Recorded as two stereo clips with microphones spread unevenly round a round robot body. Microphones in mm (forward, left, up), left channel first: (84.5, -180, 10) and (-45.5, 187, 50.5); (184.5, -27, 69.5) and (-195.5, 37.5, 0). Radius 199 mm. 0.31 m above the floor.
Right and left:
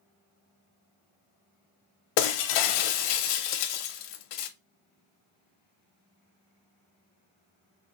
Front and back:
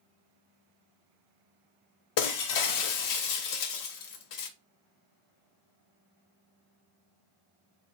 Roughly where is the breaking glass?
Ahead right.